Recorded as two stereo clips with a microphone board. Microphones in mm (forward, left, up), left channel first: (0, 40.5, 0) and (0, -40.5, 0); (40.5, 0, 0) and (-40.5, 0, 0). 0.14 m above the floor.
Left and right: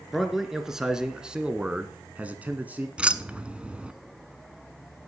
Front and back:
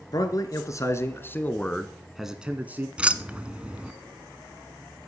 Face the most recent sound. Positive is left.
turn(degrees=-135)